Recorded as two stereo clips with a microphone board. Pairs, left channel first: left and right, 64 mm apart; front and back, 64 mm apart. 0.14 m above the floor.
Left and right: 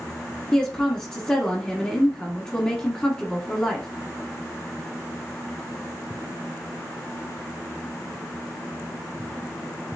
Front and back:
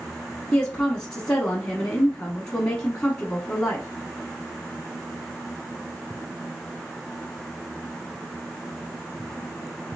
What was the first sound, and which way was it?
A woman speaking, 45° left.